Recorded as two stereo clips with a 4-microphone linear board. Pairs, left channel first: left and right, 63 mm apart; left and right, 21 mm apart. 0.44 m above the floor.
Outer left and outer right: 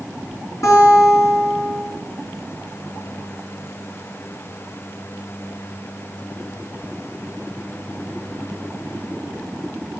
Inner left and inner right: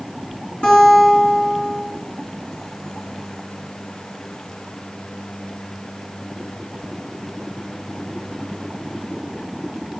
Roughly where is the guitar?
Left.